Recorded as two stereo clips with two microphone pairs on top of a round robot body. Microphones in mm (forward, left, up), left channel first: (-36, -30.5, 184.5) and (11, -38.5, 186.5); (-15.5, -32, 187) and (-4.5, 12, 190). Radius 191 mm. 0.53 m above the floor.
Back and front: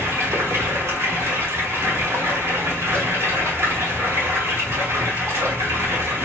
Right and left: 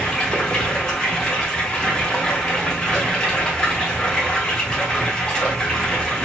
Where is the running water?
30° right, 2 m.